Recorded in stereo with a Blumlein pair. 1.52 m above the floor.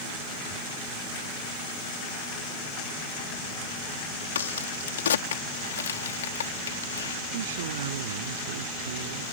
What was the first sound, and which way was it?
A crack, 65° left.